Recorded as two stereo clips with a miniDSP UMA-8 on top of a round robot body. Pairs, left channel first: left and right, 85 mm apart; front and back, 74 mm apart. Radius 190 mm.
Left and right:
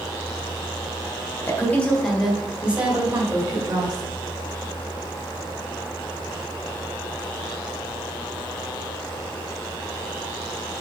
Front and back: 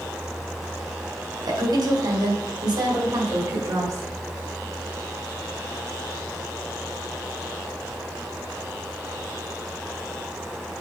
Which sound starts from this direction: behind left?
A woman speaking, at 1.4 s.